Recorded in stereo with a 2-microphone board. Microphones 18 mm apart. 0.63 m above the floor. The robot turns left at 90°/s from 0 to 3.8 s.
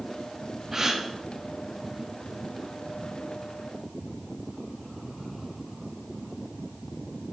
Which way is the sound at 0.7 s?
20° right (ahead or behind).